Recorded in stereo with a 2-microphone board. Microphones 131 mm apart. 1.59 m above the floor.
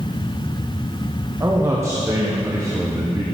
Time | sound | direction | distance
1.4 | a man speaking | 20° right (ahead or behind) | 0.9 m